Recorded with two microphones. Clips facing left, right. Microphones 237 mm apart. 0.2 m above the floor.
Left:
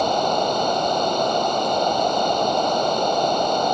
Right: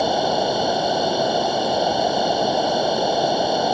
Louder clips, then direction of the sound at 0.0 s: Right 1 dB; 10° right (ahead or behind).